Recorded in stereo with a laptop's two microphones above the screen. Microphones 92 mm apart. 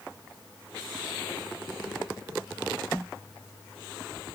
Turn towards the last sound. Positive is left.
No sound to turn to.